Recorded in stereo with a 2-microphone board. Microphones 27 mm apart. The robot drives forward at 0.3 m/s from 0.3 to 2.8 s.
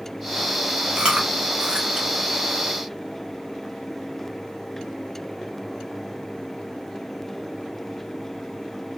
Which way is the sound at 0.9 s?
40° right (ahead or behind).